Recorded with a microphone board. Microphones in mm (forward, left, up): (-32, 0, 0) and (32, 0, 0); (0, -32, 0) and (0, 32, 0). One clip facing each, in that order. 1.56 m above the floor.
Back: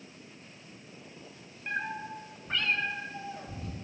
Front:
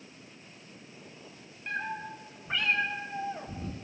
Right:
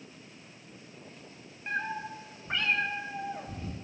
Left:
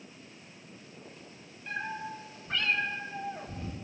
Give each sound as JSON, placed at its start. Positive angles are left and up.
{"t": 1.7, "sound": "a cat meowing", "azimuth_deg": -105, "distance_m": 1.2}